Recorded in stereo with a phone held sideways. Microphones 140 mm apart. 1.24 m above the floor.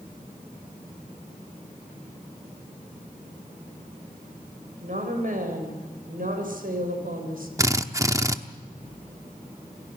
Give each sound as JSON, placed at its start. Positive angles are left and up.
{"t": 4.8, "sound": "a woman speaking", "side_deg": -65, "distance_m": 5.5}
{"t": 7.6, "sound": "a drill", "side_deg": -20, "distance_m": 0.9}